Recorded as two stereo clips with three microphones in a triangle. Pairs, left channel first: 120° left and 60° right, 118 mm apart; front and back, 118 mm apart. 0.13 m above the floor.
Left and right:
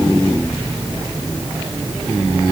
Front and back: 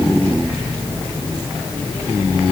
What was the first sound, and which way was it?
Only background noise.